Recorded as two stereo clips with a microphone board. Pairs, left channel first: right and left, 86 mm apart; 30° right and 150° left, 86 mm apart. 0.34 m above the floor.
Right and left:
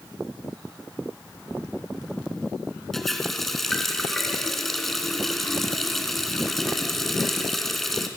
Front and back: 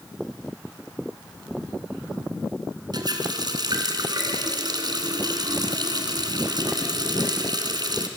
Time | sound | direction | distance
2.9 | a running tap | straight behind | 2.5 m